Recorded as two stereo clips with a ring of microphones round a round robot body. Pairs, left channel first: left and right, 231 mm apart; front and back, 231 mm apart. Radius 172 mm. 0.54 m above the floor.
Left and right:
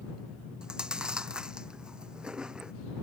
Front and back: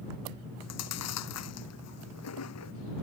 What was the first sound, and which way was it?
Chewing, 5° right.